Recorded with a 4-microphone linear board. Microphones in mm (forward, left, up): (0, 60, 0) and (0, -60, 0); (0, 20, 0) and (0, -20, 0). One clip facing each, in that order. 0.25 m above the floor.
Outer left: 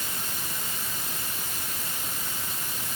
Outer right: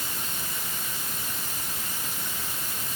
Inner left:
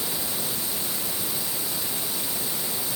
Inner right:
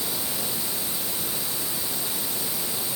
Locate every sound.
Only background noise.